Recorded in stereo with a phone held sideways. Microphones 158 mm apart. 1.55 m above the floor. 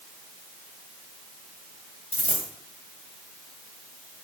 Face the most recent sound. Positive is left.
turn(degrees=40)  # may be behind; listen again after turning